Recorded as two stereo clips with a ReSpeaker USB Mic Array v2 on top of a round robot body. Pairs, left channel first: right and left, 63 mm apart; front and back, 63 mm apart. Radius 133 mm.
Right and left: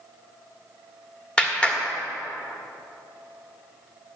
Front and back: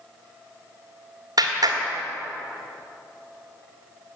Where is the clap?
165° right, 1.4 m.